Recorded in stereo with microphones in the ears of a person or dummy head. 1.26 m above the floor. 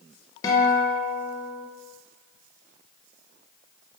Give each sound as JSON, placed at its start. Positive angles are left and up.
{"t": 0.4, "sound": "a guitar", "side_deg": 25, "distance_m": 0.6}